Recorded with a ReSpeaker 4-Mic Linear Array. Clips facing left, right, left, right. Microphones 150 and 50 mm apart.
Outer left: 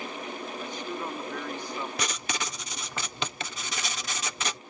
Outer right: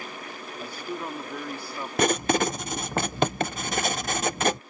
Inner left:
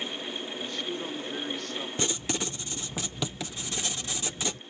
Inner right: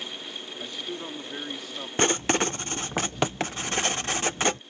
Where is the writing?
50° right (ahead or behind).